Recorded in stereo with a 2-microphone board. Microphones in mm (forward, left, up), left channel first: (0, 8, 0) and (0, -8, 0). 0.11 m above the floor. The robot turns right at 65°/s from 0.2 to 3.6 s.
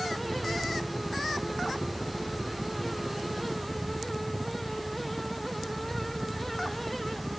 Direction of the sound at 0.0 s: 10° left.